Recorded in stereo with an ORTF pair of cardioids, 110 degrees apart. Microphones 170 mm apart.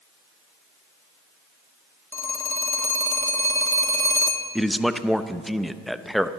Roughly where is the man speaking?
Ahead.